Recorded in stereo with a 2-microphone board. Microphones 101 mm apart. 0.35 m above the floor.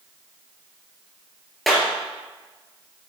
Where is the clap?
Centre (ahead or behind), 4.5 m.